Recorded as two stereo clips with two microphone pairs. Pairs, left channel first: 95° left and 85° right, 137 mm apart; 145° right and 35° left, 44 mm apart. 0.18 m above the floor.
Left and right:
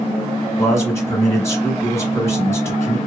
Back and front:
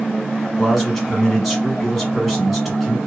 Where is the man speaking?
125° left, 1.1 m.